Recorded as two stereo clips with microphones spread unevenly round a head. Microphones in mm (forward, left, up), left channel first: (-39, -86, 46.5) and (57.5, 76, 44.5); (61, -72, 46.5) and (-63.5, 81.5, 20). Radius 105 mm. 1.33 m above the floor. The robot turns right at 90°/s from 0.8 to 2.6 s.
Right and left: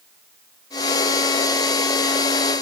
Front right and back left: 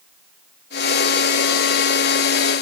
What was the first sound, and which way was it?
Only background noise.